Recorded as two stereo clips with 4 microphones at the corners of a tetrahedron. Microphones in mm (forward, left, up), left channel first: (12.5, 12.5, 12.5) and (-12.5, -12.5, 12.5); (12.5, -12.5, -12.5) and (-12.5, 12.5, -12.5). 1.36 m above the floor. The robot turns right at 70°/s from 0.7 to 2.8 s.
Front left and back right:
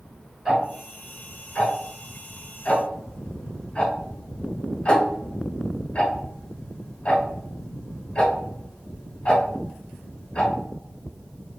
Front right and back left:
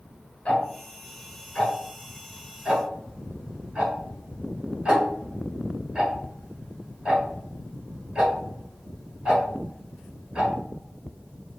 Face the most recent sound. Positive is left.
turn(degrees=75)